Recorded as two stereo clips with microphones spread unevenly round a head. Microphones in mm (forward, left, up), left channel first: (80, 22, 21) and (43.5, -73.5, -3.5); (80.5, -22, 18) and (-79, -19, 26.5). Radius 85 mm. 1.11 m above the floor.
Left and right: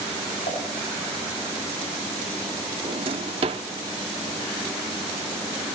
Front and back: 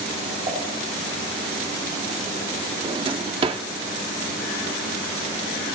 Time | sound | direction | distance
0.5 | dishes clattering | 115° left | 5 m
2.8 | a drawer | 145° right | 0.7 m